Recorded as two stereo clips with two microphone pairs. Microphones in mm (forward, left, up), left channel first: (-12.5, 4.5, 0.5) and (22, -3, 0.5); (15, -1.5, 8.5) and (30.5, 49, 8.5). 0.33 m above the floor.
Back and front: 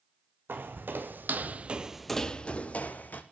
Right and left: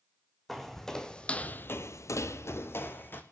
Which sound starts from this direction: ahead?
Footsteps, at 0.5 s.